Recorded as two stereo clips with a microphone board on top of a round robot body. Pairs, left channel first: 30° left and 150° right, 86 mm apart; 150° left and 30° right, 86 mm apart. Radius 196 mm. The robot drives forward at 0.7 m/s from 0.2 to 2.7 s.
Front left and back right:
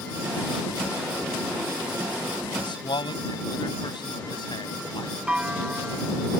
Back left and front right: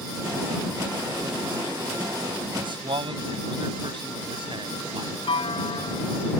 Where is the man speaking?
Straight ahead.